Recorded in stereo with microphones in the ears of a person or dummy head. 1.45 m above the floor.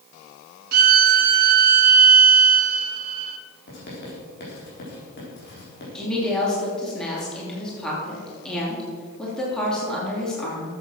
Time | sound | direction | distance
0.7 | a violin | 50° right (ahead or behind) | 0.9 m
3.7 | writing | 55° left (ahead or behind) | 4 m
6.0 | a woman speaking | 5° left (ahead or behind) | 3 m